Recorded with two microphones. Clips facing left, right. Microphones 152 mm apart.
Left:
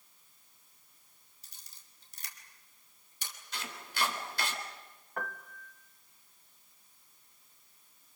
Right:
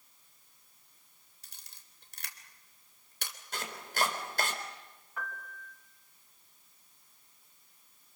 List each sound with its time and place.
1.4 s a camera shutter: 75° right (ahead or behind), 3.5 m
3.5 s chopping: 50° right (ahead or behind), 4 m
5.2 s a piano: 55° left (ahead or behind), 1.6 m